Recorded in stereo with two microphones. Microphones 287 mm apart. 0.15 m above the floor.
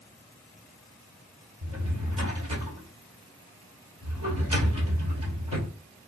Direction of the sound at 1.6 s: 70° right (ahead or behind).